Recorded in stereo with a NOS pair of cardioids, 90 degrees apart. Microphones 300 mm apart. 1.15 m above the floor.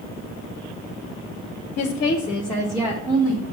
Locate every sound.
1.8 s a woman speaking: 60° left, 0.6 m; by 3.4 s 25° right, 1.1 m